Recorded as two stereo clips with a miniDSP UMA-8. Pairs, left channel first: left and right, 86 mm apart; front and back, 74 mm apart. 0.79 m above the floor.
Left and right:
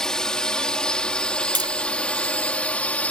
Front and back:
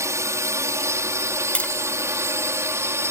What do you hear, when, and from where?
0.0 s a drone: 170° left; by 3.1 s 155° left
1.6 s tapping: 75° right